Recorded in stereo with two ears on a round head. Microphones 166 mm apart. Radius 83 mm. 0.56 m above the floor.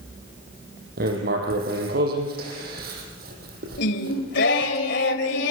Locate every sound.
1.0 s writing: 55° right (ahead or behind), 6 m
3.8 s singing: 65° left (ahead or behind), 2.5 m